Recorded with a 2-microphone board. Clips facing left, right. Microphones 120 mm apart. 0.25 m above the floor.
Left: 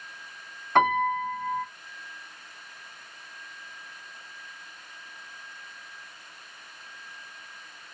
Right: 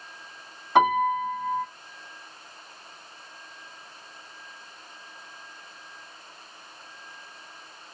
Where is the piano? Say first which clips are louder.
Right 2 dB; 10° right (ahead or behind), 1.6 m.